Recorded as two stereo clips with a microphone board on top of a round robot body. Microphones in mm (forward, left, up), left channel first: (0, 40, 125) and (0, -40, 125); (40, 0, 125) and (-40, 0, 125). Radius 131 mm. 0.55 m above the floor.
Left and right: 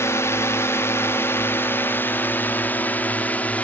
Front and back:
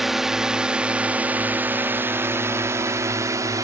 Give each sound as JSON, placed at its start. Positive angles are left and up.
{"t": 0.0, "sound": "a drone", "azimuth_deg": 95}